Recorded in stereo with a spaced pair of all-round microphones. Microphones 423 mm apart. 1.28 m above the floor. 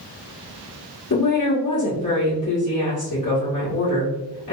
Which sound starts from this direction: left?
A woman speaking, at 1.1 s.